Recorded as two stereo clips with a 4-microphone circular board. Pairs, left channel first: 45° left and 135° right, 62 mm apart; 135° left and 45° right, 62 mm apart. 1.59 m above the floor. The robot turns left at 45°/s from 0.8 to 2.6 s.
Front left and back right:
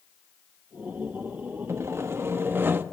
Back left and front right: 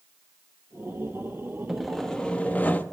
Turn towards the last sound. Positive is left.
turn(degrees=-170)